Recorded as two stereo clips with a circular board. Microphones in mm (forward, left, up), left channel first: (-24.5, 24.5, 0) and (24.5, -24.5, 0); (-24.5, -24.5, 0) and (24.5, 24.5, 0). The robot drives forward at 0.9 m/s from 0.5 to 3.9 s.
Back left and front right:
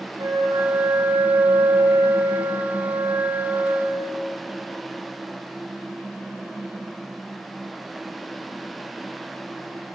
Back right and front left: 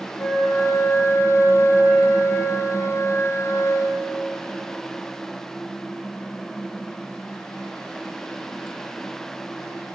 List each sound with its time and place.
0.2 s a flute: 60° right, 6.5 m; by 4.2 s 90° right, 6 m